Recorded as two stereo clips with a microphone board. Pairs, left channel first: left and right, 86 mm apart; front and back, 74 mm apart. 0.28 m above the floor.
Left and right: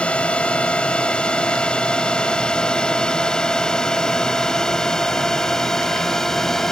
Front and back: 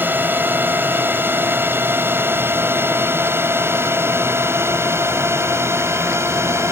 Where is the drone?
155° left; by 6.7 s 175° left.